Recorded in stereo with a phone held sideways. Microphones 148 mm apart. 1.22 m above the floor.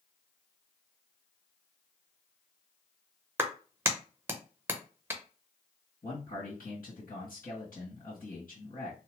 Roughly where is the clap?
Centre.